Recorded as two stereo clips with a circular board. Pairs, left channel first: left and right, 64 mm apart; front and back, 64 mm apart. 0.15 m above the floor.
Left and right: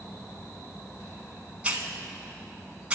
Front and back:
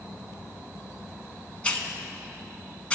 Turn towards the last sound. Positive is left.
turn(degrees=-45)